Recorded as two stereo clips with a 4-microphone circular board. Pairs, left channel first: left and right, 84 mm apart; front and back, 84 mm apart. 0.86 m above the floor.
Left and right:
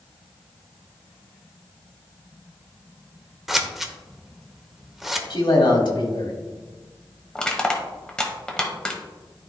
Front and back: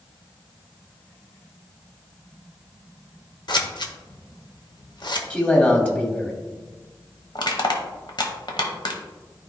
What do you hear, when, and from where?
3.5 s scissors: 5° right, 0.8 m
5.3 s a man speaking: 70° left, 1.8 m
7.3 s crushing: 10° left, 1.0 m